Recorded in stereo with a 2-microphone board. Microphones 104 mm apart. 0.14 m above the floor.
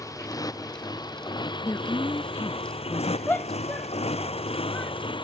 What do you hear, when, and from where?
0.0 s a motorcycle: 35° left (ahead or behind); by 5.2 s 50° left (ahead or behind)
1.6 s a woman speaking: 30° left (ahead or behind)
3.3 s a shout: 15° left (ahead or behind)